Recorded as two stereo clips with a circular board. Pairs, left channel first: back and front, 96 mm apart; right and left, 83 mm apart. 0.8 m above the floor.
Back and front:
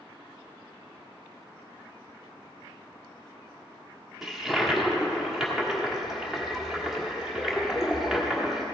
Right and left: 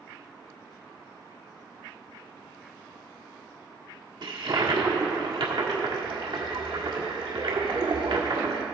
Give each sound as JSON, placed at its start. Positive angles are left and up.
{"t": 4.2, "sound": "a toilet flushing", "azimuth_deg": 85, "distance_m": 1.5}